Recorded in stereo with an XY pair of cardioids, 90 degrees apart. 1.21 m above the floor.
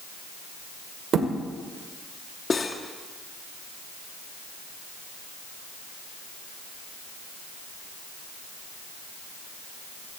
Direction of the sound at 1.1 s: 65° right.